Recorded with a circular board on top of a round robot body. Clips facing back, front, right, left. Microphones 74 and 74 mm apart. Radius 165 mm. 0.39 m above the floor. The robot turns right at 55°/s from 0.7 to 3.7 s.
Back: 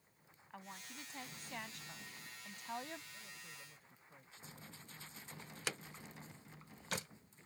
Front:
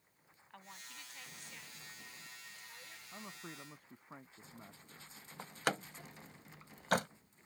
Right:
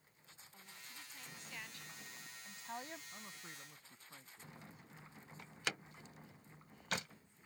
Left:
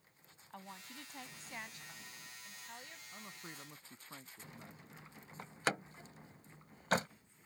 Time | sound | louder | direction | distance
0.5 | a woman speaking | back 2 dB, left 8 dB | 100° left | ?
3.1 | a man speaking | front 6 dB, left 2 dB | straight ahead | ?
5.4 | a door slam | front 10 dB, left 7 dB | 35° left | ?